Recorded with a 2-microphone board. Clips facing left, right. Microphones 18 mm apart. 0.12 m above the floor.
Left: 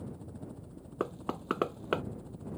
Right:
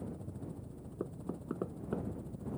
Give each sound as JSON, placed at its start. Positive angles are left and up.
{"t": 0.0, "sound": "a helicopter", "side_deg": 15}
{"t": 1.0, "sound": "knocking", "side_deg": 70}